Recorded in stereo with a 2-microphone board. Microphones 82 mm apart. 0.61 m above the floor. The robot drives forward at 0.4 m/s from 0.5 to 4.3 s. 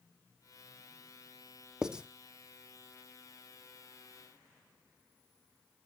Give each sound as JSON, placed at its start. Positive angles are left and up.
{"t": 1.8, "sound": "writing", "side_deg": -10, "distance_m": 0.6}